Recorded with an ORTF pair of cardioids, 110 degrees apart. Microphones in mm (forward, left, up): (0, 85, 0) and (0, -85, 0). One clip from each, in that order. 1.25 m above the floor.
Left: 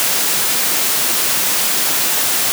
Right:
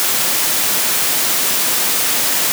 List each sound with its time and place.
Only background noise.